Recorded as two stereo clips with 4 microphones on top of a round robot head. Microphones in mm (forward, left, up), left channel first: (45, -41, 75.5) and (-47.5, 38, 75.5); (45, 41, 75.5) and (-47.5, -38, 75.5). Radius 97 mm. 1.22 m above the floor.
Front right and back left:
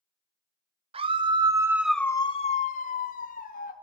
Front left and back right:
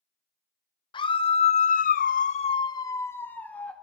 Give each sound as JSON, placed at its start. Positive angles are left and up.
{"t": 0.9, "sound": "a scream", "azimuth_deg": 95, "distance_m": 1.3}